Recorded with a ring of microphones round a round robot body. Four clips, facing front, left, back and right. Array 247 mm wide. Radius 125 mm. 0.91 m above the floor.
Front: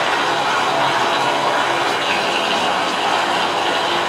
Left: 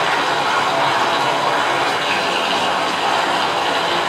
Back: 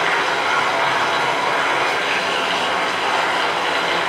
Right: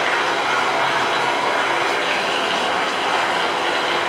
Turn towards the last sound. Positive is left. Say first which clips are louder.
# left 2 dB, front 2 dB
turn(degrees=45)